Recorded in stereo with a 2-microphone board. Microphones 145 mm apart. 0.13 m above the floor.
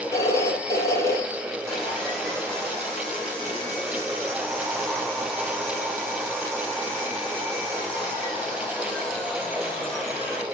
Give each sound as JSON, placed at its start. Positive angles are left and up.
{"t": 0.1, "sound": "a phone ringing", "side_deg": 25, "distance_m": 2.5}
{"t": 1.7, "sound": "sawing", "side_deg": 5, "distance_m": 4.0}